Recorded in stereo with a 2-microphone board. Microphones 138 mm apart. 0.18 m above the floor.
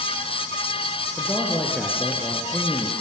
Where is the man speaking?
15° left (ahead or behind), 3 m.